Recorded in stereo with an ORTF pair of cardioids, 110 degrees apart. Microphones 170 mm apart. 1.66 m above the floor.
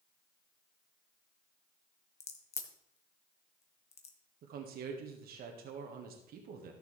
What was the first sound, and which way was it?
A crack, 40° left.